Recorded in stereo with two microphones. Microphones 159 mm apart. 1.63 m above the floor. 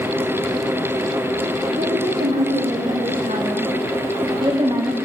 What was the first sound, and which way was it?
A woman speaking, 70° right (ahead or behind).